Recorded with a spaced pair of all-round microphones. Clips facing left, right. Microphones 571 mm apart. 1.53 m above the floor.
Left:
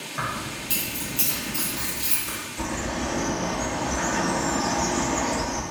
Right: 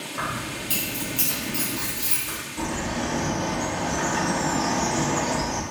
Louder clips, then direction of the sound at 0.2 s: Right 1 dB; 15° left (ahead or behind).